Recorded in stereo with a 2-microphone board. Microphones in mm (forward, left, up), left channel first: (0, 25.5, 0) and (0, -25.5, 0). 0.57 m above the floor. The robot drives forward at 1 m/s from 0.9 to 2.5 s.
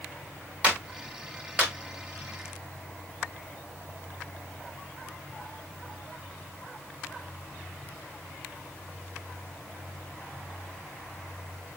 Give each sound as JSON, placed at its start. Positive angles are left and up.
{"t": 0.6, "sound": "a clap", "side_deg": -20, "distance_m": 1.8}